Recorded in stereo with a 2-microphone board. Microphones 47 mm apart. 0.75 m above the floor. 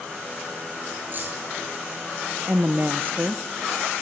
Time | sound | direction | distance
1.1 | keys jangling | 45° right (ahead or behind) | 8.5 m
2.5 | a woman speaking | 45° right (ahead or behind) | 0.9 m